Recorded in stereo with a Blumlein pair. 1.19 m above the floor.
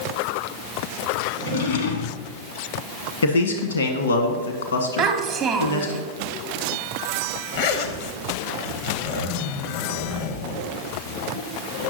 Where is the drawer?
60° left, 1.1 m.